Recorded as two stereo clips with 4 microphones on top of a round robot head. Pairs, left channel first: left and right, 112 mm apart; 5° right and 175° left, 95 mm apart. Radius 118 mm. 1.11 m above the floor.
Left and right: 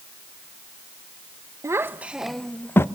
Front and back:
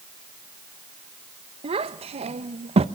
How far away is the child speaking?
About 1.0 m.